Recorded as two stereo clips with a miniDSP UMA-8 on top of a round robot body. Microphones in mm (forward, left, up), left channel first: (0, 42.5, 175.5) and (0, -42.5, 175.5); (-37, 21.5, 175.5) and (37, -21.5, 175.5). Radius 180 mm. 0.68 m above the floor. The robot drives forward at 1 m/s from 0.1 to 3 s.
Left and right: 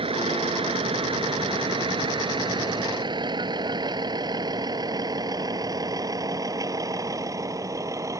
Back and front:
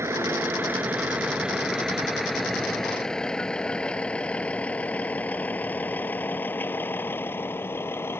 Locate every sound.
0.0 s a vehicle: 90° right; by 8.2 s 145° right